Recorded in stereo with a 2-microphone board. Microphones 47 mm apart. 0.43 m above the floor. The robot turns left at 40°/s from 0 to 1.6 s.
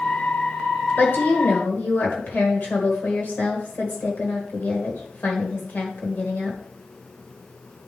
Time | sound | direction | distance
1.0 | a woman speaking | 50° left (ahead or behind) | 1.8 m